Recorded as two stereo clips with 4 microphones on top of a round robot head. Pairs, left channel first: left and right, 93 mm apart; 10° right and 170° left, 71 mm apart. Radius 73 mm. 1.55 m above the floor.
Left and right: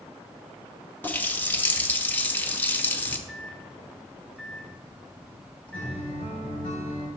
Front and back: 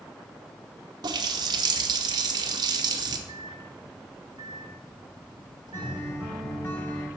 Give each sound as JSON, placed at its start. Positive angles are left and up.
{"t": 1.0, "sound": "a running tap", "azimuth_deg": 160, "distance_m": 0.9}
{"t": 3.3, "sound": "a microwave", "azimuth_deg": 170, "distance_m": 2.0}
{"t": 5.7, "sound": "a guitar", "azimuth_deg": 50, "distance_m": 4.0}